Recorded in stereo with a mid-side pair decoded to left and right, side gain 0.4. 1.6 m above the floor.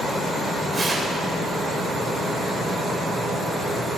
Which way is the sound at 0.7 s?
25° right.